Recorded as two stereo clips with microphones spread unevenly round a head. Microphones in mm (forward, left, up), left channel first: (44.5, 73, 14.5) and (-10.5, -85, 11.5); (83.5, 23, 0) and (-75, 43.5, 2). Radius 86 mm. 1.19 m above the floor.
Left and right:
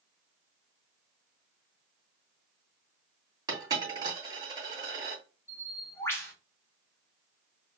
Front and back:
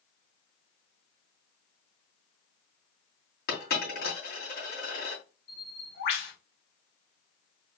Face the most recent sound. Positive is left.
turn(degrees=-5)